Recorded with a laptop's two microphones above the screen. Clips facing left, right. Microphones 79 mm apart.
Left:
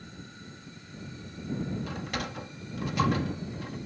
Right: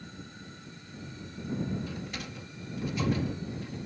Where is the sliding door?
65° left (ahead or behind).